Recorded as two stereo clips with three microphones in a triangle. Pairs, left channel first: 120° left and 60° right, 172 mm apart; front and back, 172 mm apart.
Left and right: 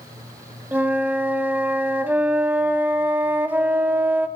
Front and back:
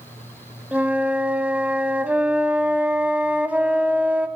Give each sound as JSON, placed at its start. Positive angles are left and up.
{"t": 0.7, "sound": "a flute", "azimuth_deg": -120, "distance_m": 0.6}